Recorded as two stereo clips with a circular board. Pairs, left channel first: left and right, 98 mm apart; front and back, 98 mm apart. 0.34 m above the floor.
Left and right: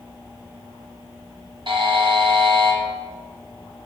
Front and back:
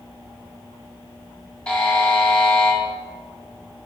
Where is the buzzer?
75° right, 1.6 m.